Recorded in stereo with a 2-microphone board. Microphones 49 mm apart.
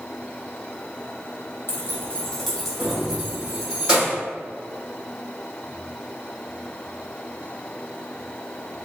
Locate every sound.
1.7 s keys jangling: 45° left (ahead or behind), 0.8 m; by 4.2 s 25° right (ahead or behind), 2.5 m